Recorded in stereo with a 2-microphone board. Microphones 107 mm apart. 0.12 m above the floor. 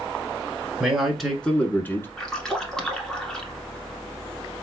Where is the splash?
5° left (ahead or behind), 1.1 m.